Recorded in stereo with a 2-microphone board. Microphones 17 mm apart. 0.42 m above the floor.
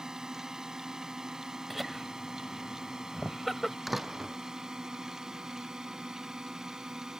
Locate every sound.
0.0 s a drone: 40° right (ahead or behind)
1.7 s laughter: centre (ahead or behind)
3.9 s a door slam: 10° right (ahead or behind)